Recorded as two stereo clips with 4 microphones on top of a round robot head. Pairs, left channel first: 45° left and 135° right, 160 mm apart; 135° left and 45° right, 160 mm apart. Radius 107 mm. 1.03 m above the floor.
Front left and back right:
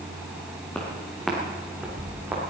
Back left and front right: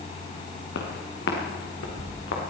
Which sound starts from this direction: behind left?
Footsteps, at 0.7 s.